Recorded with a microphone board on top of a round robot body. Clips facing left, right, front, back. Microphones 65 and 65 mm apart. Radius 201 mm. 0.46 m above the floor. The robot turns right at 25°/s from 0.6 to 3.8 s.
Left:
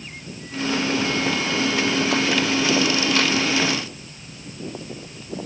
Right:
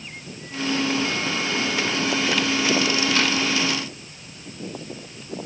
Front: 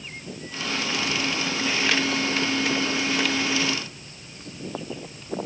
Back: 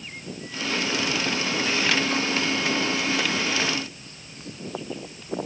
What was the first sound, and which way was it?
Only background noise.